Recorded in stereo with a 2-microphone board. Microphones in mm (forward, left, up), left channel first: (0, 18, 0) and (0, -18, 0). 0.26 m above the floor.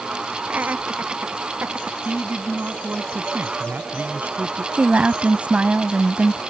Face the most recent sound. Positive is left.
turn(degrees=-45)  # may be behind; listen again after turning